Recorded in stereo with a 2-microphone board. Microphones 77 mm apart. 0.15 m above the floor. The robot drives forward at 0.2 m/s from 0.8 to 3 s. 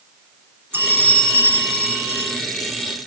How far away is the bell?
About 0.7 m.